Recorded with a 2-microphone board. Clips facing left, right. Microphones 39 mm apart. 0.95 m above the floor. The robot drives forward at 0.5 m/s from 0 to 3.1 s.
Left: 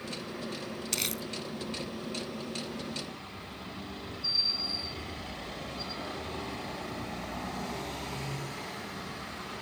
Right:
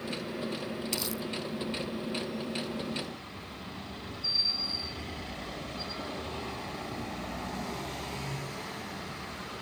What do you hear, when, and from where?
0.9 s crumpling: 70° left (ahead or behind); by 1.2 s 65° left (ahead or behind)